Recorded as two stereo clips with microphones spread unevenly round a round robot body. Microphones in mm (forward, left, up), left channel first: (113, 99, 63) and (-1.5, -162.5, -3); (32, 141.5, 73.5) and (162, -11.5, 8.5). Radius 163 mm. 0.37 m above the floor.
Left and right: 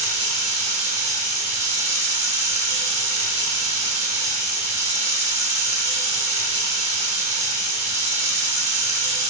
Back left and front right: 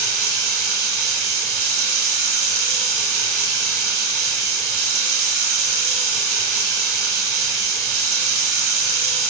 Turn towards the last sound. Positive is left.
turn(degrees=-55)